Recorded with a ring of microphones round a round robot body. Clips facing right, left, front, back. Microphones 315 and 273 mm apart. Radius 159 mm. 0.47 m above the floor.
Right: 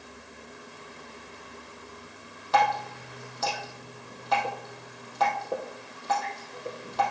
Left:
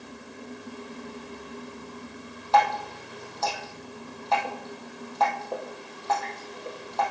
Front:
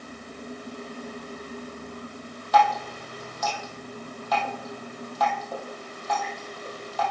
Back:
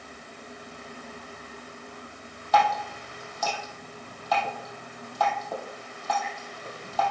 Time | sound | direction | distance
2.5 | dripping | 160° right | 2.5 m